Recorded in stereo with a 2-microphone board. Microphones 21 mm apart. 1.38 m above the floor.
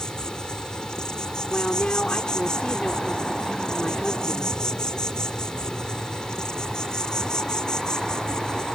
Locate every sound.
0.0 s an insect: 35° left (ahead or behind)
1.5 s a woman speaking: 65° left (ahead or behind)